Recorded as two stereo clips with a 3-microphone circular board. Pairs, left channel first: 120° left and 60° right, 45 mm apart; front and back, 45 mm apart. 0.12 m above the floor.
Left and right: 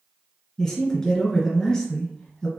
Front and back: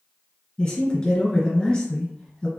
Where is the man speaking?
60° left, 1.4 m.